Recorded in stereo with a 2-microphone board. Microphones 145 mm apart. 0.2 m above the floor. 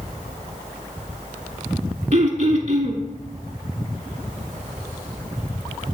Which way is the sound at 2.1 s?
50° right (ahead or behind).